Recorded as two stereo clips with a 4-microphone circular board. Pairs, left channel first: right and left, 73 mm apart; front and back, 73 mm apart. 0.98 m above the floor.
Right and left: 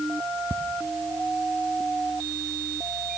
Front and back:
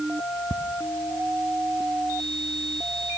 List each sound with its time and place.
0.5 s ticking: 145° left, 0.6 m